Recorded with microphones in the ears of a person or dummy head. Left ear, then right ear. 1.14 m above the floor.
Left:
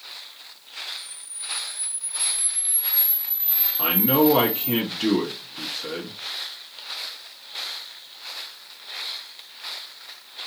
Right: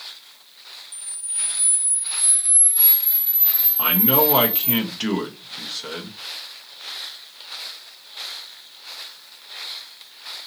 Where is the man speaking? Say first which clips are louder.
Even; 20° right (ahead or behind), 1.0 m.